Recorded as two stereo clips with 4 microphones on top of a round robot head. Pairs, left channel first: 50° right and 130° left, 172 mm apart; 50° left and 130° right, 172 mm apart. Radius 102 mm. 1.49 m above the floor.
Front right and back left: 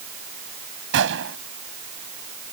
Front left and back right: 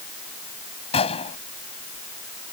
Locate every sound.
0.9 s a gunshot: 110° left